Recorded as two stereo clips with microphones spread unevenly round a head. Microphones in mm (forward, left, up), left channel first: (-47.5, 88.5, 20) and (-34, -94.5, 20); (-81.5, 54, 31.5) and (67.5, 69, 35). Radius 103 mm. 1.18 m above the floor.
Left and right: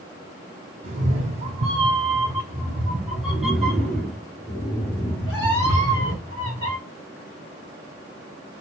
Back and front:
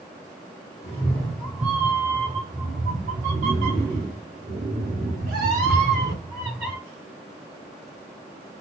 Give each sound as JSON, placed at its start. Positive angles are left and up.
{"t": 0.8, "sound": "a cat meowing", "azimuth_deg": -110, "distance_m": 1.1}